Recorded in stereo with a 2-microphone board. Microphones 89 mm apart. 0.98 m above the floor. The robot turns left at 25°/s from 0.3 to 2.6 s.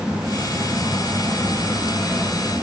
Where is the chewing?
No chewing in this recording.